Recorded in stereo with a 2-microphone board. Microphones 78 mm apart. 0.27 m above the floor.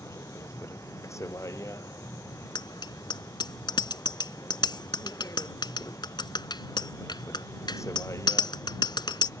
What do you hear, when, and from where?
0.0 s a vehicle: 40° left (ahead or behind)
2.5 s a bicycle bell: 70° left (ahead or behind)